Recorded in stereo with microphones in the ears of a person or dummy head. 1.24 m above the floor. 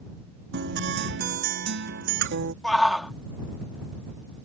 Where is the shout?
5° left (ahead or behind).